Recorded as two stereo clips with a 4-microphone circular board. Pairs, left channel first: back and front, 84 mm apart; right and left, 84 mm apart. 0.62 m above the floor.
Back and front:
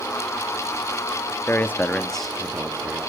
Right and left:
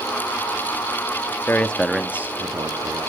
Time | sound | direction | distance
1.5 | a man speaking | 140° right | 0.8 m